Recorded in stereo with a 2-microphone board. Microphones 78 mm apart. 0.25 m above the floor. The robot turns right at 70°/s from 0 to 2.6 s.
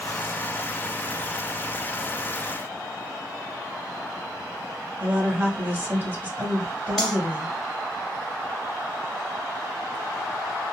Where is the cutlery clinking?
Centre (ahead or behind), 1.3 m.